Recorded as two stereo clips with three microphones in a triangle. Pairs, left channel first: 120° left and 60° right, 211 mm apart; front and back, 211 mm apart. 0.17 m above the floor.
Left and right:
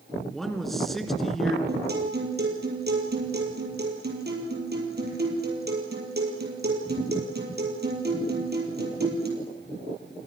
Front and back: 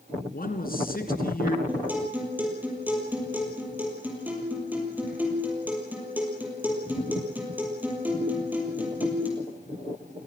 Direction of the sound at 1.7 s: 100° right.